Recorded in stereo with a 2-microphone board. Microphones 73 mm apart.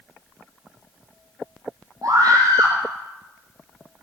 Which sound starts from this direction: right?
A scream, at 2.0 s.